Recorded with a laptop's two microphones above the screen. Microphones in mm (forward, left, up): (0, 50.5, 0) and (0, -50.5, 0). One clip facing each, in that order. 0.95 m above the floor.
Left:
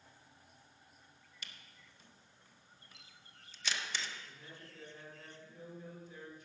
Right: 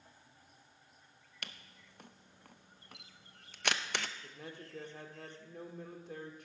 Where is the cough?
I don't hear a cough.